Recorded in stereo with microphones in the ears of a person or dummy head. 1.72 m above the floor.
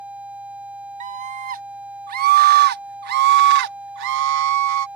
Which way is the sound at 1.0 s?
35° right (ahead or behind).